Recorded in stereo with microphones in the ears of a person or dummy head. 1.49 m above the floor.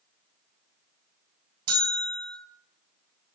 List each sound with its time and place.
1.7 s a bell: 55° right (ahead or behind), 5.5 m